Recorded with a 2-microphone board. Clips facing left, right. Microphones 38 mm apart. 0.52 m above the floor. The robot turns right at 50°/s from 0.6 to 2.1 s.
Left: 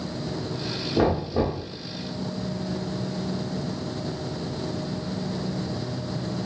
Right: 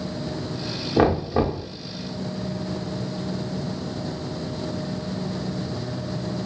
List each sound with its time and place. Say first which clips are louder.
1.0 s knocking: right 3 dB; 105° right, 0.7 m; by 1.6 s 70° right, 0.7 m